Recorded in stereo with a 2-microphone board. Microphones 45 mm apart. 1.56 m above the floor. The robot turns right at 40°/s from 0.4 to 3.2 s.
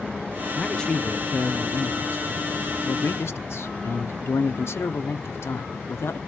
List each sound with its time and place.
0.6 s a man speaking: 5° left, 0.7 m; by 6.2 s 115° left, 0.7 m